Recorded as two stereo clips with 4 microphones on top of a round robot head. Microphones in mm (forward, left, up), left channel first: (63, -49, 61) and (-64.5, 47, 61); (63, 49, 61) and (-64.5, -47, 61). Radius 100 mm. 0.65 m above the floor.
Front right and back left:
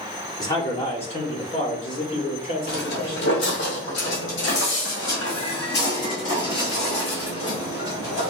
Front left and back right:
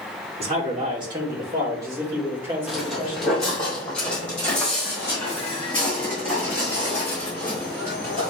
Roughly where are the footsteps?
Ahead right.